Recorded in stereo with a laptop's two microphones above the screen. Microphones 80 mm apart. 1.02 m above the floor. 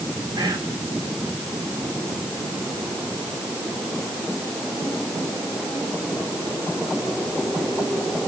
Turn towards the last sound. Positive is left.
turn(degrees=-45)  # may be behind; listen again after turning